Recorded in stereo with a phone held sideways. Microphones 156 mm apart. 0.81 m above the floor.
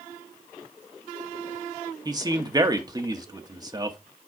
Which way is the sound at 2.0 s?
25° right (ahead or behind).